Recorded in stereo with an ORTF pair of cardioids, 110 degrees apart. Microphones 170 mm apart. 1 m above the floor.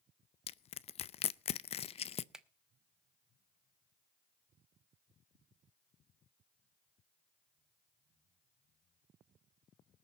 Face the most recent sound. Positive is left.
turn(degrees=-5)